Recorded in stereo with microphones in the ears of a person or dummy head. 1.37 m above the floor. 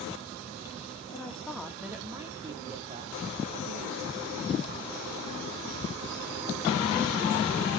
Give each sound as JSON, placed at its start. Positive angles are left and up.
{"t": 1.1, "sound": "a woman speaking", "side_deg": 15, "distance_m": 1.6}